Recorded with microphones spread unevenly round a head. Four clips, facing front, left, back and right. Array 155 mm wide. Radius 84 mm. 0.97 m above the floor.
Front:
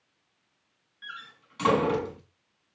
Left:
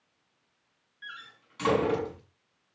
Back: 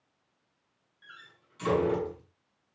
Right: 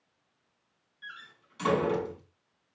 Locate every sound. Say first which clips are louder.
1.0 s a door slam: left 2 dB, front 9 dB; 10° left, 6.5 m